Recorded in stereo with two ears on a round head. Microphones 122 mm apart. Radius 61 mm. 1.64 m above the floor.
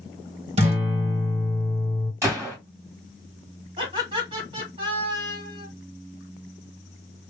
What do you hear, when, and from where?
0.6 s a guitar: 50° right (ahead or behind), 1.0 m
2.2 s a gunshot: 20° right (ahead or behind), 2 m
3.8 s laughter: 40° right (ahead or behind), 2.5 m